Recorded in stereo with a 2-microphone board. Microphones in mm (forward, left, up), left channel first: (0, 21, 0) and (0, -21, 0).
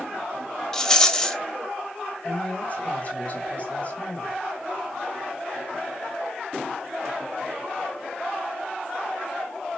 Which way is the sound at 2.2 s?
35° left (ahead or behind).